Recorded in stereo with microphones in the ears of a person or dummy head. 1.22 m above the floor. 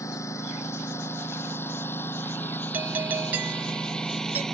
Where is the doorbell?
5° right (ahead or behind).